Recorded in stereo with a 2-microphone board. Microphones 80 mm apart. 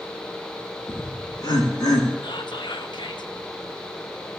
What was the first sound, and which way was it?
Laughter, 55° left (ahead or behind).